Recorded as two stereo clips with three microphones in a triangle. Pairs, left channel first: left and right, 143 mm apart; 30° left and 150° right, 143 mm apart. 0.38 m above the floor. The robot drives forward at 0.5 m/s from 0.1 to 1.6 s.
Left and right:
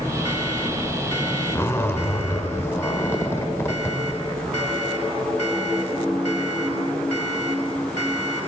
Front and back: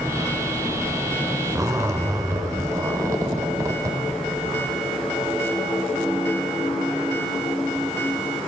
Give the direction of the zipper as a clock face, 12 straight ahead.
7 o'clock.